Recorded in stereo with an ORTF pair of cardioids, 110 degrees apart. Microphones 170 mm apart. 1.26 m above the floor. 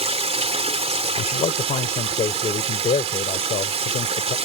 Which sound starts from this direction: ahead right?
Running water, at 0.0 s.